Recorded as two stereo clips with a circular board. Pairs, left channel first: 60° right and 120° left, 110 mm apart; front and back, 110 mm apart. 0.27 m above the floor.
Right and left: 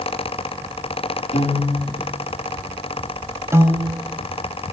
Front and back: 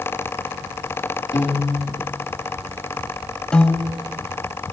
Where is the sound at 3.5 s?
75° left, 0.8 m.